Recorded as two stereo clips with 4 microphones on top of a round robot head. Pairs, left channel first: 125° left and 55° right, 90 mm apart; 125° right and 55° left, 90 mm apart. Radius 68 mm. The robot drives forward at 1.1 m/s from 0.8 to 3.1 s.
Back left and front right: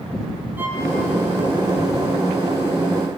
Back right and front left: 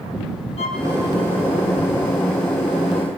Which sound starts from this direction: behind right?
A violin, at 0.6 s.